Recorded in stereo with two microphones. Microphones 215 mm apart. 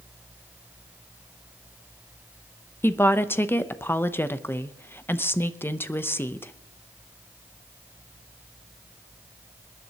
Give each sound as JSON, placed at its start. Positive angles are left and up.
{"t": 2.8, "sound": "a woman speaking", "side_deg": 10, "distance_m": 0.7}